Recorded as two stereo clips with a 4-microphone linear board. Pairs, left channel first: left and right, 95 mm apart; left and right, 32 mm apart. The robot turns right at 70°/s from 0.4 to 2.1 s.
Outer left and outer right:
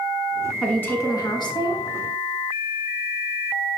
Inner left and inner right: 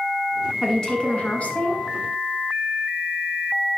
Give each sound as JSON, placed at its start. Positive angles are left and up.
{"t": 0.6, "sound": "a woman speaking", "azimuth_deg": 10, "distance_m": 1.6}